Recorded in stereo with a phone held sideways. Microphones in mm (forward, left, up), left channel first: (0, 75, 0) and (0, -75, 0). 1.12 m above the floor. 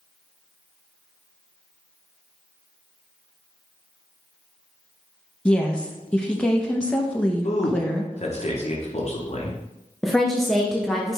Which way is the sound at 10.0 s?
5° left (ahead or behind).